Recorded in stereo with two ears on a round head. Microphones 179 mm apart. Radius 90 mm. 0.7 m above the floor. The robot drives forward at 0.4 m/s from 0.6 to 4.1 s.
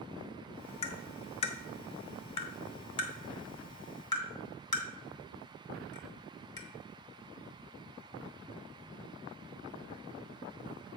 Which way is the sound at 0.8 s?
30° left (ahead or behind).